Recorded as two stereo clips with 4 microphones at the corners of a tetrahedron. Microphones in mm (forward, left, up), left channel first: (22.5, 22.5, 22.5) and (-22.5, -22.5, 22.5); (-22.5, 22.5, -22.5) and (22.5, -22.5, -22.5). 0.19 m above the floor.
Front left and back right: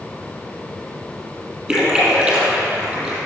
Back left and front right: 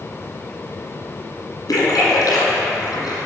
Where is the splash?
145° left, 1.8 m.